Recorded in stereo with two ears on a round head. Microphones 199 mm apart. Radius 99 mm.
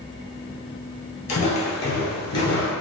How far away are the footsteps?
About 1.5 m.